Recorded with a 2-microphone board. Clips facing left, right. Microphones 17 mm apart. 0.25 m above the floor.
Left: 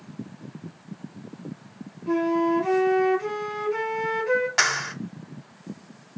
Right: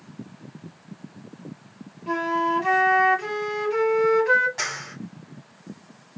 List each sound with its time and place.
2.1 s a flute: 50° right (ahead or behind), 1.8 m
4.6 s a clap: 45° left (ahead or behind), 1.6 m